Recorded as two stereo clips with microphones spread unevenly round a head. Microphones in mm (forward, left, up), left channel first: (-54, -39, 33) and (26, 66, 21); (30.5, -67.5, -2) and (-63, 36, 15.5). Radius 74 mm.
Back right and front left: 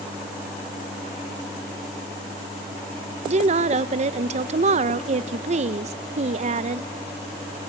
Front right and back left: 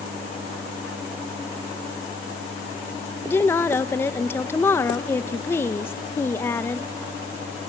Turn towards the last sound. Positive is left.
turn(degrees=25)